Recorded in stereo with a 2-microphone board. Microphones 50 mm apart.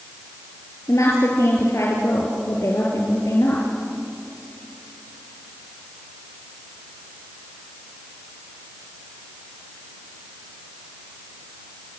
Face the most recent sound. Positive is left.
turn(degrees=75)  # may be behind; listen again after turning